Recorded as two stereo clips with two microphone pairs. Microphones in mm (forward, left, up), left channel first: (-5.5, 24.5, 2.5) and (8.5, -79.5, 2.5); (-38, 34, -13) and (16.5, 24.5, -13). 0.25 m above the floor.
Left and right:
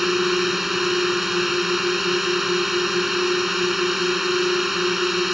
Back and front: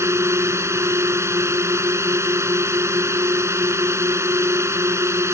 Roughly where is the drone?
Ahead.